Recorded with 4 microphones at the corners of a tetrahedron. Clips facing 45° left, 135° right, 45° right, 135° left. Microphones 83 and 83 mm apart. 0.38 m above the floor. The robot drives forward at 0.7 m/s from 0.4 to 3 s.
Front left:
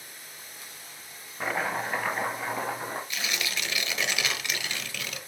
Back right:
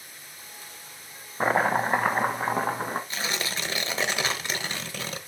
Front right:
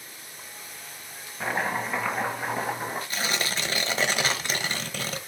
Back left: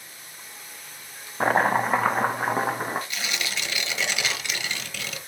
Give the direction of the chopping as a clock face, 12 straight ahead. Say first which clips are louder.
Back right 7 dB, back left 7 dB; 6 o'clock.